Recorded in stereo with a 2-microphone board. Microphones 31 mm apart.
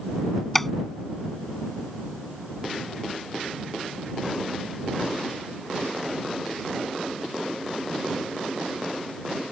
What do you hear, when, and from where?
0.6 s tapping: 10° left (ahead or behind)